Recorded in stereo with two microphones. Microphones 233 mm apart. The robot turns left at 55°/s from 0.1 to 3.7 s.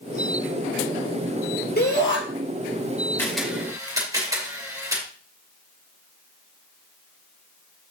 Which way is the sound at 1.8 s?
45° left (ahead or behind).